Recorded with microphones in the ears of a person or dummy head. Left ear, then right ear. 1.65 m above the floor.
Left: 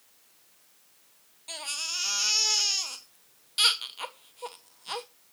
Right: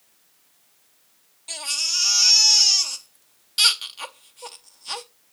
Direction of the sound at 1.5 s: 5° right (ahead or behind).